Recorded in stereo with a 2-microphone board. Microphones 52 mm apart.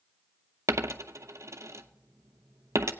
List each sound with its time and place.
0.7 s a dropped coin: 70° right (ahead or behind), 0.6 m